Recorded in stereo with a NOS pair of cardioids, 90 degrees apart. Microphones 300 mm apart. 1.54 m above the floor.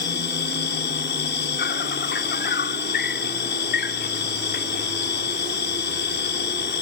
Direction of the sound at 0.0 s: 35° left.